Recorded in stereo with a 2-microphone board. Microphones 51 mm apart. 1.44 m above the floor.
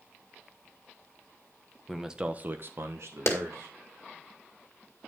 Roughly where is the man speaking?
Centre.